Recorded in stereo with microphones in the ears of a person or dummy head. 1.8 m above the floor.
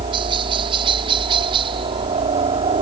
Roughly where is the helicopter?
Right.